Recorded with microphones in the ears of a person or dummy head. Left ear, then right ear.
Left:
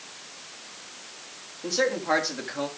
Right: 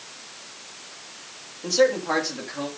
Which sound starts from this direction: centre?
A man speaking, at 1.6 s.